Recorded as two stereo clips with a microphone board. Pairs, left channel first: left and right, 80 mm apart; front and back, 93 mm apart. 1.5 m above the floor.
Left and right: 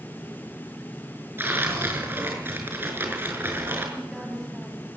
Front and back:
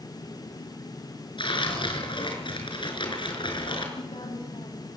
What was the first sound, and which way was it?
Tearing paper, 30° right.